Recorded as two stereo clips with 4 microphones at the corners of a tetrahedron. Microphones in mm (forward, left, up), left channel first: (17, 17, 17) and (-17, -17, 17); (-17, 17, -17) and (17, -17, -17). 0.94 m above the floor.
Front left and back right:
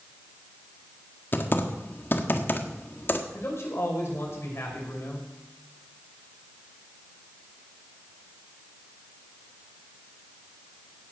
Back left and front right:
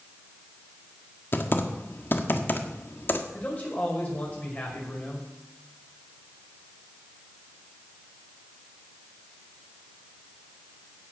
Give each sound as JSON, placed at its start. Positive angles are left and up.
{"t": 1.3, "sound": "typing on a keyboard", "azimuth_deg": 90, "distance_m": 1.4}
{"t": 3.3, "sound": "a man speaking", "azimuth_deg": 80, "distance_m": 5.5}